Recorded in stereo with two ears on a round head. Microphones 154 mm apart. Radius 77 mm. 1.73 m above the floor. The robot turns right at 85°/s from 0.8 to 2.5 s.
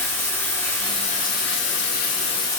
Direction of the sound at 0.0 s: 15° left.